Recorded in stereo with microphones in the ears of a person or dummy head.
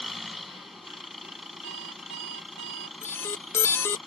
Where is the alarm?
15° left (ahead or behind).